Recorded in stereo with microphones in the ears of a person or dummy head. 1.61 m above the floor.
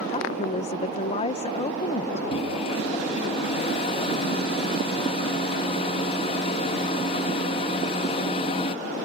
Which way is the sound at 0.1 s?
35° left (ahead or behind).